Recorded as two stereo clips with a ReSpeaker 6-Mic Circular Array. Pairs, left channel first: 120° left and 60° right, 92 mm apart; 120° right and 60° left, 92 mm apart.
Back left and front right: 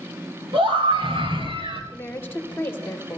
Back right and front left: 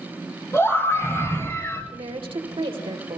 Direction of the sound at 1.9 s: 55° left.